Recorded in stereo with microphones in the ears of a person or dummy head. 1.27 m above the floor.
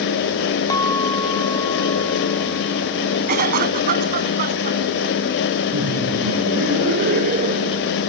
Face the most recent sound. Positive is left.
turn(degrees=-50)  # may be behind; listen again after turning